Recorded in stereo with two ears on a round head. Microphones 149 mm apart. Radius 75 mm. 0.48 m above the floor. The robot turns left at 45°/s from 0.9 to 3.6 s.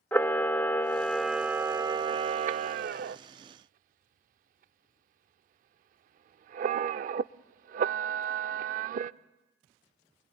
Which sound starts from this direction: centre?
A camera shutter, at 0.1 s.